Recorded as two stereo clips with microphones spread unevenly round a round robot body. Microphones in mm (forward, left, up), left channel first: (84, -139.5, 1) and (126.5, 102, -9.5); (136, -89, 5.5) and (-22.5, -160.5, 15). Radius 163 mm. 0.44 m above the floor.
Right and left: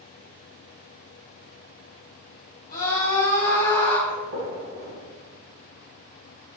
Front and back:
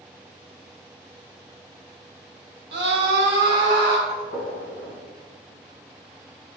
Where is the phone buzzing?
I don't hear a phone buzzing.